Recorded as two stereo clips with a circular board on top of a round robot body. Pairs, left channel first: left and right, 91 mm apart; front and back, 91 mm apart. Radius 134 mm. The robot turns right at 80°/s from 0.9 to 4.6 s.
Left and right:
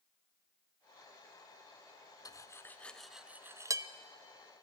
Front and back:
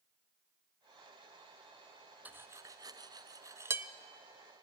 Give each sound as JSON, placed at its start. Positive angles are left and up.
{"t": 2.2, "sound": "cutlery clinking", "azimuth_deg": 115, "distance_m": 0.6}